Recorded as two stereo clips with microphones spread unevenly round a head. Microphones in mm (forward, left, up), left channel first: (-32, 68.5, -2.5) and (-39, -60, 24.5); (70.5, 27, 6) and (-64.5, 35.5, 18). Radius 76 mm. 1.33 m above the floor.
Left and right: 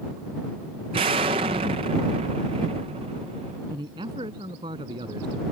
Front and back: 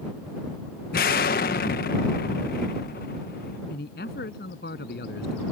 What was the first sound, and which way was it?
An explosion, 40° right.